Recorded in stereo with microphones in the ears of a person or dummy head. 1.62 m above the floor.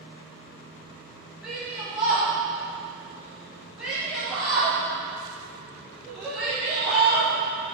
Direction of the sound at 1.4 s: 5° right (ahead or behind).